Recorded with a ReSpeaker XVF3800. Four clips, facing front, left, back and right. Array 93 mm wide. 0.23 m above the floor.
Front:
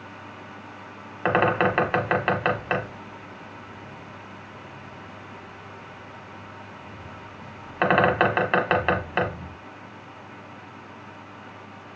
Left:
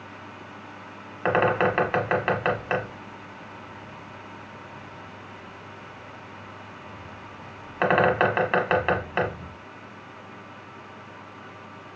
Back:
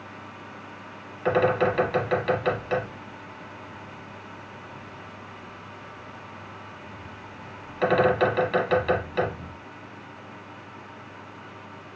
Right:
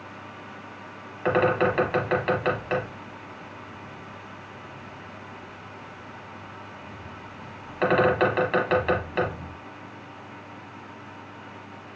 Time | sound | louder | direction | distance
1.2 | a bird | even, front 1 dB | 25° left | 1.0 m